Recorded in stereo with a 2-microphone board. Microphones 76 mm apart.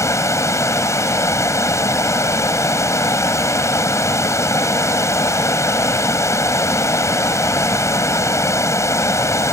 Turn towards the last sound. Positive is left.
turn(degrees=40)  # may be behind; listen again after turning